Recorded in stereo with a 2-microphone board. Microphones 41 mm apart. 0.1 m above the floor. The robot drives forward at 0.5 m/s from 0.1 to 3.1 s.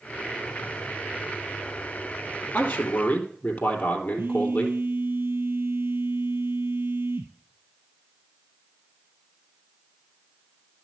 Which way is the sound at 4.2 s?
60° right (ahead or behind).